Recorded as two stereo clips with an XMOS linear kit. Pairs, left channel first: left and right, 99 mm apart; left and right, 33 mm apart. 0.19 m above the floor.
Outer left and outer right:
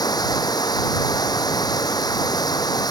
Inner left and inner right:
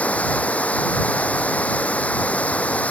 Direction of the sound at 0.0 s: 40° left (ahead or behind).